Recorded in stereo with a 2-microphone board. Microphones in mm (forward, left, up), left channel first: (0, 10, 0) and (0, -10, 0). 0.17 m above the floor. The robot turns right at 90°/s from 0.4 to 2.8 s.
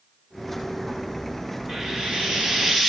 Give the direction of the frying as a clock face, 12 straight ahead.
4 o'clock.